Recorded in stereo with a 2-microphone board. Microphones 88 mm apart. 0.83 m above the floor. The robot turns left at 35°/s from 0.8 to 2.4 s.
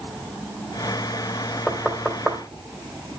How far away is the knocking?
About 2.5 m.